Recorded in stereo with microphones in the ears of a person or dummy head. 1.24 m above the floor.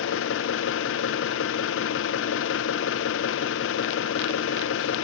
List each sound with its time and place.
0.0 s an engine running: 65° left (ahead or behind), 0.9 m